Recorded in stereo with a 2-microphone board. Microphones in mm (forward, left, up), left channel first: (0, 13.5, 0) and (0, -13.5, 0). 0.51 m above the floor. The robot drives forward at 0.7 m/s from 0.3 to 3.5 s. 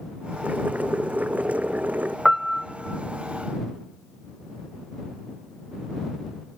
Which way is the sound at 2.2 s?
5° right (ahead or behind).